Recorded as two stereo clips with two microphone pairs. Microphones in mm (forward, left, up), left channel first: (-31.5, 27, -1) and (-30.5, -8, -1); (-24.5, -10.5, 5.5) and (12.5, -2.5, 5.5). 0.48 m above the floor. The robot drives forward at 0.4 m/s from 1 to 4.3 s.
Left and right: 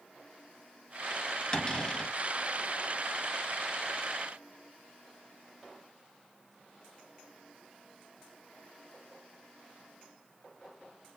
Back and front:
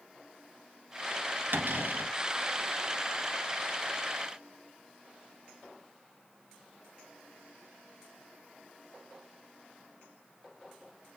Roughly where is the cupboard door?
Ahead.